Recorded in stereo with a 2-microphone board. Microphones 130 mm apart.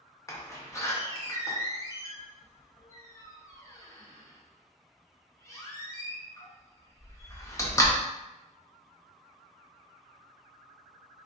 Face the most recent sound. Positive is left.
turn(degrees=25)  # may be behind; listen again after turning